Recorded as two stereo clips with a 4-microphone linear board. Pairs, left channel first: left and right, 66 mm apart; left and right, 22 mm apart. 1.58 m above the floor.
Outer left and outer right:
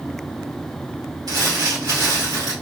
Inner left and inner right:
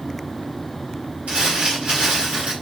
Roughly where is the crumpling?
Right.